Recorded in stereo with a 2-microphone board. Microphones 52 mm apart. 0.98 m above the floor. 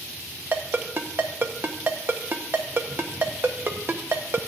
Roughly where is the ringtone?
Right.